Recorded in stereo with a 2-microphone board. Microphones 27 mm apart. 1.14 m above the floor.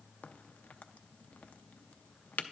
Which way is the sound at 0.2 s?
80° left.